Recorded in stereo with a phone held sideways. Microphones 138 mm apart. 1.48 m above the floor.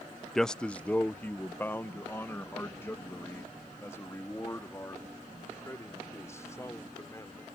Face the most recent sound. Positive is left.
turn(degrees=20)  # may be behind; listen again after turning